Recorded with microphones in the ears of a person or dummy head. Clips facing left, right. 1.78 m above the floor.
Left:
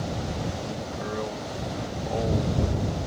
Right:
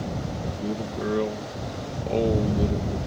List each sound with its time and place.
0.6 s a man speaking: 40° right (ahead or behind)